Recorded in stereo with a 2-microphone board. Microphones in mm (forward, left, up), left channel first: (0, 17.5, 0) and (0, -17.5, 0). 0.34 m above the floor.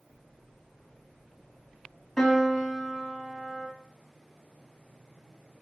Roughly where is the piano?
Centre.